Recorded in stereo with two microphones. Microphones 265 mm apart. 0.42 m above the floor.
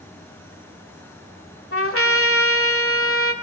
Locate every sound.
1.7 s a trumpet: 55° left (ahead or behind), 1.8 m